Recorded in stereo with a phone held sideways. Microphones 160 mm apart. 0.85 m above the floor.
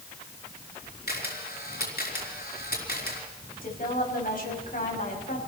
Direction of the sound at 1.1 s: 85° left.